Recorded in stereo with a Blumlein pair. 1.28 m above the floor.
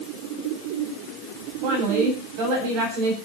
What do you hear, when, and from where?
1.6 s a woman speaking: 45° right, 8 m